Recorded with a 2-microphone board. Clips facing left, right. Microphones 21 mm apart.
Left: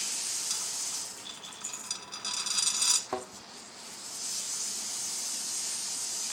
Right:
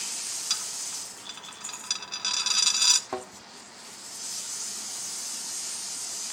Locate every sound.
0.5 s a dropped coin: 45° right (ahead or behind), 0.6 m
3.1 s a thud: 5° right (ahead or behind), 1.2 m